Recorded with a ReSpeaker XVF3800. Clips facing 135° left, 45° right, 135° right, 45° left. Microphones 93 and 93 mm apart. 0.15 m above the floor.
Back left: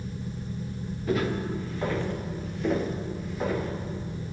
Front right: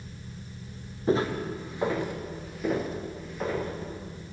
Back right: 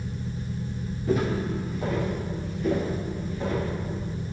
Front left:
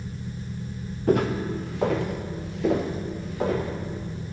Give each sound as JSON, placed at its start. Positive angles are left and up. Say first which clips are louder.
{"t": 1.1, "sound": "footsteps", "louder": "front right 2 dB, front left 3 dB", "azimuth_deg": 15, "distance_m": 1.6}